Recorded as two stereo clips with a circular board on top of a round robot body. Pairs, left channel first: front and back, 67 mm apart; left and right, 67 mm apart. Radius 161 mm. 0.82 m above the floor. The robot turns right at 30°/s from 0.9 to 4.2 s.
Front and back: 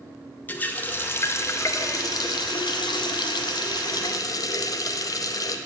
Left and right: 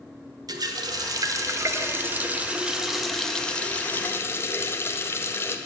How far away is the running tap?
About 0.7 m.